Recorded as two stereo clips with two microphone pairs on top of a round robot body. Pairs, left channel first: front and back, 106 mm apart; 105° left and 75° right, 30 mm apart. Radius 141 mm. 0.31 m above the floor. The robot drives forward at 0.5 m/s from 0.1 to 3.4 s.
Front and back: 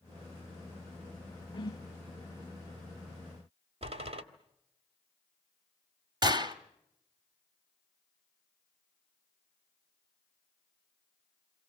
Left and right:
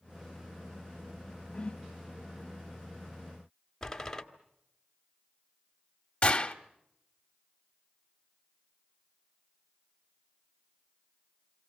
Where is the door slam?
Straight behind, 2 m.